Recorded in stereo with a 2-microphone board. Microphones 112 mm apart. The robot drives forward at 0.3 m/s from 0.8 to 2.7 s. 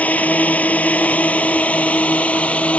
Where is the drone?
15° left (ahead or behind); by 2.8 s 10° left (ahead or behind).